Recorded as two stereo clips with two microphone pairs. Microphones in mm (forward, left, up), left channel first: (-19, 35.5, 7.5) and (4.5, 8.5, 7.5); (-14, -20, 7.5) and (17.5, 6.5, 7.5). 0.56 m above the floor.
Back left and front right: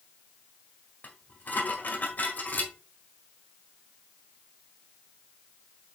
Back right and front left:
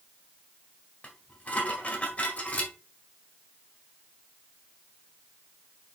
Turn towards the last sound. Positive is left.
turn(degrees=165)